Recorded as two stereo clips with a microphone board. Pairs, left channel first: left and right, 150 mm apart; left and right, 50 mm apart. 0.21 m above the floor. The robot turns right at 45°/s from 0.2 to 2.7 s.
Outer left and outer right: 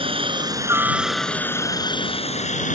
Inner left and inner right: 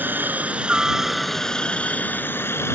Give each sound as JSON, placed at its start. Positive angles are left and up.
{"t": 0.0, "sound": "a helicopter", "azimuth_deg": -45}